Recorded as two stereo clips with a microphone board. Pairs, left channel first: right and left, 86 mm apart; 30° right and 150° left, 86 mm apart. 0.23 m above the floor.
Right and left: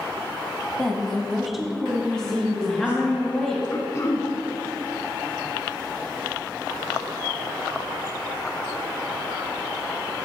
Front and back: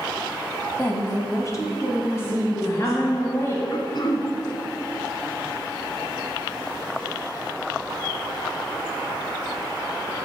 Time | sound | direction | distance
0.8 | a woman speaking | 30° right | 1.0 m
2.1 | a woman speaking | 15° right | 1.2 m
3.7 | throat clearing | 45° right | 0.9 m